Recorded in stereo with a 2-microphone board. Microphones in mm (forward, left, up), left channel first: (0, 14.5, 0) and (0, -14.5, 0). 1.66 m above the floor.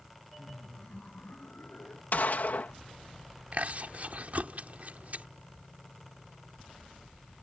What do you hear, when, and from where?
0.4 s laughter: 10° left (ahead or behind); by 2.0 s 70° left (ahead or behind)
2.1 s a gunshot: 65° left (ahead or behind)
3.5 s chewing: 55° right (ahead or behind)